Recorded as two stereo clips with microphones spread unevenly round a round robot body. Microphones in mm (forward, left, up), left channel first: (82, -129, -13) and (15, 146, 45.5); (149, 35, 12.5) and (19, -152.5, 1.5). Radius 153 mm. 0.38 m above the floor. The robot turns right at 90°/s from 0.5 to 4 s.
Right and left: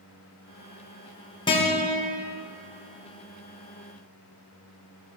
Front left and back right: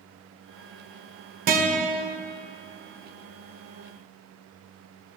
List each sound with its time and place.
1.5 s a guitar: 125° right, 1.0 m; by 2.0 s 75° right, 1.0 m